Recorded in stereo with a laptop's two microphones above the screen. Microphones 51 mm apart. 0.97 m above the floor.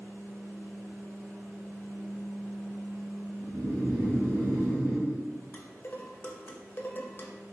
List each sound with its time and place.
0.0 s a fan: 80° right, 1.7 m
3.4 s snoring: 60° right (ahead or behind), 0.9 m
5.5 s dishes clattering: 45° left (ahead or behind), 0.5 m